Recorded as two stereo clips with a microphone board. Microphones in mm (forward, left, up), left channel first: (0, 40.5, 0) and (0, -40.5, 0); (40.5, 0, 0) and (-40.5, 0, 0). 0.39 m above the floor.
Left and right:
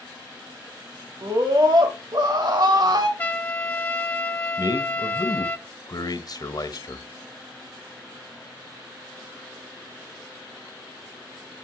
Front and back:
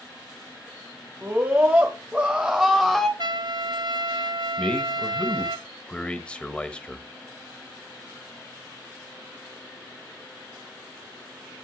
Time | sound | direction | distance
1.2 | a scream | 120° right | 1.9 m
3.2 | a trumpet | 160° left | 0.7 m
4.6 | a man speaking | 75° left | 1.4 m